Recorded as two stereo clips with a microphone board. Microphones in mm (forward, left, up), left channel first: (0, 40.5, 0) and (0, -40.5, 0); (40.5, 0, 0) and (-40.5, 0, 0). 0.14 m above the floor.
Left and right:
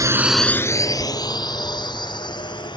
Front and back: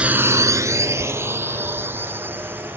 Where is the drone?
110° right; by 2.8 s 115° left.